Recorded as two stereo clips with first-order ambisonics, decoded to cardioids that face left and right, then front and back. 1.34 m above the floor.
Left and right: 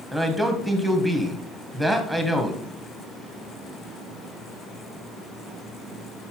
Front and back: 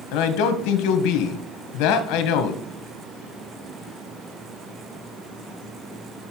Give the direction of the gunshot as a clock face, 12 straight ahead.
I don't hear a gunshot.